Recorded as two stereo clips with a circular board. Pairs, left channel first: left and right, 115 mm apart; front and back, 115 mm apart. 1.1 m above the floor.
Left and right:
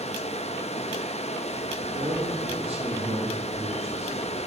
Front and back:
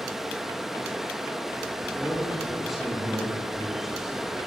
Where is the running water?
95° left, 1.3 m.